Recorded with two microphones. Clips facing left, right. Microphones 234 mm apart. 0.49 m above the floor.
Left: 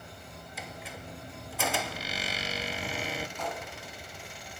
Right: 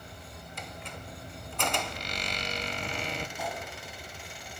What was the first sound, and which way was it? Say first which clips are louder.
A squeak: left 1 dB; 5° left (ahead or behind).